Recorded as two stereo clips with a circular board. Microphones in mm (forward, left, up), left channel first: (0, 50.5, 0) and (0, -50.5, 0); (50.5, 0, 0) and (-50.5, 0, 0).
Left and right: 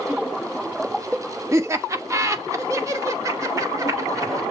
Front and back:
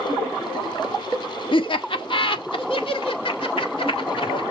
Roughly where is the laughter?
Ahead right.